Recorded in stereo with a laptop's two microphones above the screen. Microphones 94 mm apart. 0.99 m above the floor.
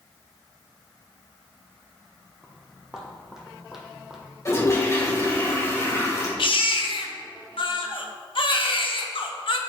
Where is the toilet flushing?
30° left (ahead or behind), 2.5 m.